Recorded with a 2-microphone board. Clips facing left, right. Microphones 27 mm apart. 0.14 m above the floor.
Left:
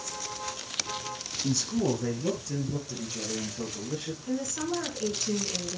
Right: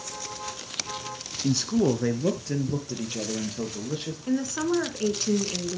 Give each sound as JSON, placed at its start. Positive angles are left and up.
{"t": 1.4, "sound": "a man speaking", "side_deg": -20, "distance_m": 1.0}
{"t": 4.3, "sound": "a woman speaking", "side_deg": -30, "distance_m": 1.8}